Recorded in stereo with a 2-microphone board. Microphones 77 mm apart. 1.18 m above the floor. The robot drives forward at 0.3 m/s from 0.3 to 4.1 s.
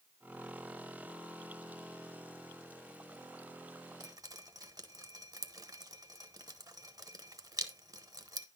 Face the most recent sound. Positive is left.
turn(degrees=-55)  # may be behind; listen again after turning